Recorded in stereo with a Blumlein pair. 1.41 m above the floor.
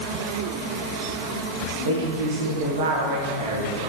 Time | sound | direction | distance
1.9 | a woman speaking | 55° right | 1.4 m